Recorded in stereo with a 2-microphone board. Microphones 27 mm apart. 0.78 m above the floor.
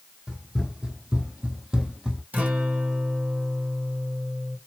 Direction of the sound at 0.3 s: 30° right (ahead or behind).